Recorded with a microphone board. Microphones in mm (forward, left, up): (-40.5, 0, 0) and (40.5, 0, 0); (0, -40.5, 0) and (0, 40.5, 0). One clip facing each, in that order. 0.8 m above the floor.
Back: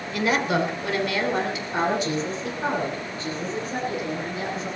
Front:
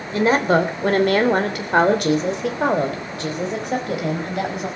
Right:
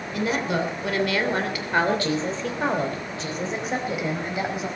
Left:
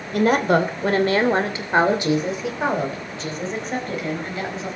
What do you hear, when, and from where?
0.1 s a woman speaking: 55° left, 3 m; by 4.7 s 15° right, 5 m